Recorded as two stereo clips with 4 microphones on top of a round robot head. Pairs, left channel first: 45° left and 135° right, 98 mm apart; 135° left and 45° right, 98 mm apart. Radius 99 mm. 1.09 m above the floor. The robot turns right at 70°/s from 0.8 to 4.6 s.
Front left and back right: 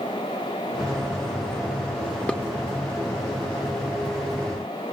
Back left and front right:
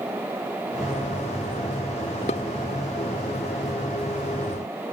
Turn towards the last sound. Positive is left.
turn(degrees=-75)